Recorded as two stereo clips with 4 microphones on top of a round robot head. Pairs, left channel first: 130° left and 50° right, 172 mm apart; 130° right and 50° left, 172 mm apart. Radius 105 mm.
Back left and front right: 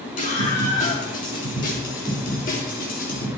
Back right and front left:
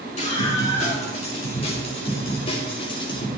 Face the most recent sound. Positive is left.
turn(degrees=165)